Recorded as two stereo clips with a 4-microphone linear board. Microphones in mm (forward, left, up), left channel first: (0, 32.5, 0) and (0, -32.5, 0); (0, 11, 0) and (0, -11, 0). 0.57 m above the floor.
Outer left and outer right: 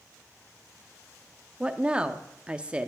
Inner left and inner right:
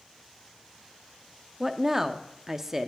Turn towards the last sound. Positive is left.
turn(degrees=-15)  # may be behind; listen again after turning